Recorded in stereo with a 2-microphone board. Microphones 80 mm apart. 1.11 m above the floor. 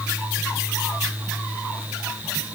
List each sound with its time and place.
Only background noise.